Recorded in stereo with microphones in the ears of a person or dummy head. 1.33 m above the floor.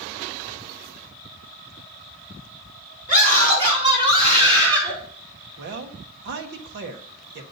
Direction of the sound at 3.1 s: 40° right (ahead or behind).